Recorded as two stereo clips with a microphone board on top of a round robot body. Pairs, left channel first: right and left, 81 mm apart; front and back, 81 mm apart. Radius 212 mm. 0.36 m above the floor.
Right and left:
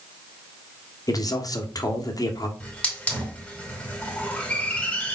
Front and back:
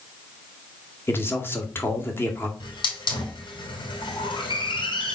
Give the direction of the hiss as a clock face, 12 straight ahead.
1 o'clock.